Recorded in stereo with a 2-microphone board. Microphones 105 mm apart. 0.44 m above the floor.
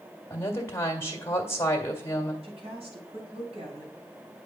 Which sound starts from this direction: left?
A woman speaking, at 0.3 s.